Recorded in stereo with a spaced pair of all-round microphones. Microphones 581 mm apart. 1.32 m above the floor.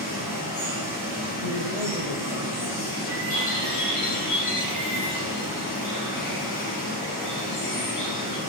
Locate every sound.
0.0 s running water: 35° left (ahead or behind), 3.5 m
1.4 s a man speaking: 70° left (ahead or behind), 0.7 m
3.3 s a bird: 30° left (ahead or behind), 1.7 m